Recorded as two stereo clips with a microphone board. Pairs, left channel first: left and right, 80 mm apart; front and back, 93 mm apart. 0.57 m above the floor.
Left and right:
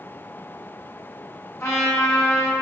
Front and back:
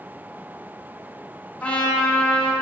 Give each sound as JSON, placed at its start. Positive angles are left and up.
{"t": 1.6, "sound": "a trumpet", "azimuth_deg": 65, "distance_m": 1.2}